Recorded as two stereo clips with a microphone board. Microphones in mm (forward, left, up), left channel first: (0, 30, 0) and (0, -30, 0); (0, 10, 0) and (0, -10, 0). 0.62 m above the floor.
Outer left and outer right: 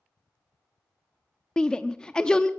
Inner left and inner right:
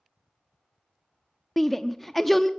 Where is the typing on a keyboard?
No typing on a keyboard in this recording.